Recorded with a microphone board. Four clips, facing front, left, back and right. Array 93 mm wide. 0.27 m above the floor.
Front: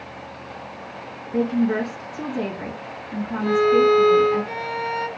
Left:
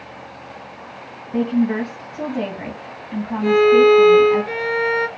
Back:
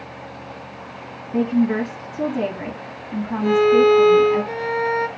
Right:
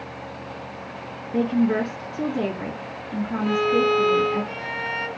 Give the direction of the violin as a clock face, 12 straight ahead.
9 o'clock.